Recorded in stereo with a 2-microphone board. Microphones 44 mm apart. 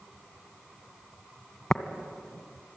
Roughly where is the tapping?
Centre.